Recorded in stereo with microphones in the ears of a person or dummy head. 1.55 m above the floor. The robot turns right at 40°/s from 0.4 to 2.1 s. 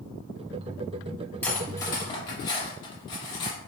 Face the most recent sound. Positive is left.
turn(degrees=25)  # may be behind; listen again after turning